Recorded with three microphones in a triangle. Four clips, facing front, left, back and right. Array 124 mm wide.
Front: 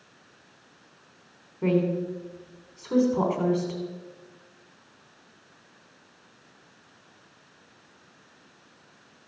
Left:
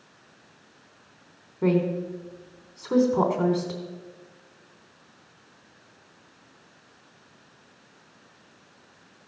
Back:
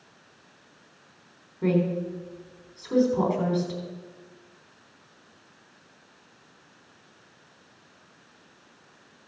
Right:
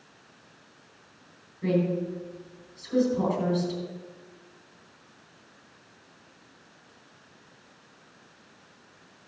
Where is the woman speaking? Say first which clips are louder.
Left 2 dB, even; 80° left, 3.5 m.